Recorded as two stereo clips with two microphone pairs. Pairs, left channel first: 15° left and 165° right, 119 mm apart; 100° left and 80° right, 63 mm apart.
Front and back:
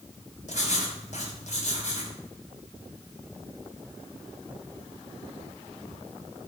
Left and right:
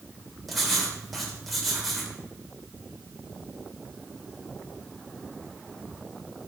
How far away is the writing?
About 2.5 m.